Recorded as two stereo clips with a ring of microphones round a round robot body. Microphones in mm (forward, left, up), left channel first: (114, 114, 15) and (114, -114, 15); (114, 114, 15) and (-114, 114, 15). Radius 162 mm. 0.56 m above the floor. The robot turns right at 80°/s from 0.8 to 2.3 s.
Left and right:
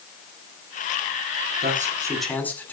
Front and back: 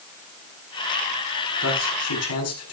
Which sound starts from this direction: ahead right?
A man speaking, at 1.6 s.